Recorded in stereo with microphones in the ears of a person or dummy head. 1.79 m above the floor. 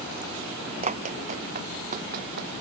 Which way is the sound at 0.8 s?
40° right (ahead or behind).